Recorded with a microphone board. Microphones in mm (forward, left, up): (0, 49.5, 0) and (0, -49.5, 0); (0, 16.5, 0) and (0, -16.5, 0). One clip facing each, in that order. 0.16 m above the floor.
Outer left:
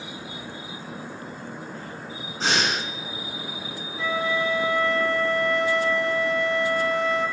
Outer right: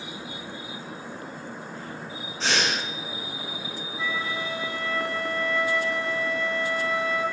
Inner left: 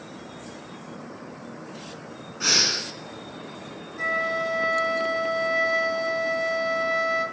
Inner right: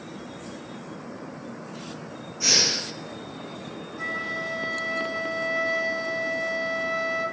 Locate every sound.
2.4 s breathing: 40° left (ahead or behind), 3 m
4.0 s a flute: 60° left (ahead or behind), 2.5 m